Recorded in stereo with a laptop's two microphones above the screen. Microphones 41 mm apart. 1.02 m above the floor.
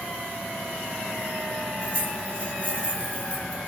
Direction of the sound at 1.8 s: 30° left (ahead or behind).